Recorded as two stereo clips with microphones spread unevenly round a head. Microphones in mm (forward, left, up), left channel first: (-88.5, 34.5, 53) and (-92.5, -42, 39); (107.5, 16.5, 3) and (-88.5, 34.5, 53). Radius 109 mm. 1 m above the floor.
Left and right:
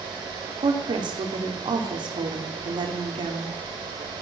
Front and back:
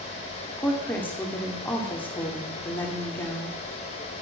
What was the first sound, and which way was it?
A woman speaking, 85° right.